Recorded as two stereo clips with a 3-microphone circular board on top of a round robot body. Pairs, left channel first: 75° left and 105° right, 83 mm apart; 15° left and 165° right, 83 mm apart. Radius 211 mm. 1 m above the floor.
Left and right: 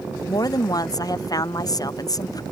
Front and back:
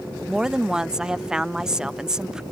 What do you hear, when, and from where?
0.3 s a woman speaking: 115° left